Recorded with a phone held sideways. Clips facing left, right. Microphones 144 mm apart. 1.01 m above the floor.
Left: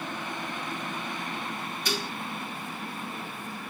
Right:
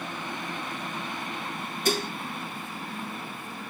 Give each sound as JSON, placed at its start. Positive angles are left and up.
{"t": 1.9, "sound": "dishes clattering", "side_deg": -50, "distance_m": 1.4}